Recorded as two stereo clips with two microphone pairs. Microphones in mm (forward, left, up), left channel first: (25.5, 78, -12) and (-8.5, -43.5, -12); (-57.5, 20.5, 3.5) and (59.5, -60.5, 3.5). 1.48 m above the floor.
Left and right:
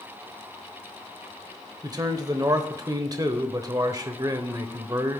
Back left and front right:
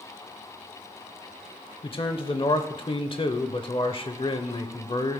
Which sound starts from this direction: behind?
A man speaking, at 1.8 s.